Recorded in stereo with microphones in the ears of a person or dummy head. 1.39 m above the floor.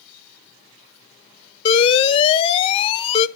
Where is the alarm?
30° left (ahead or behind), 0.7 m.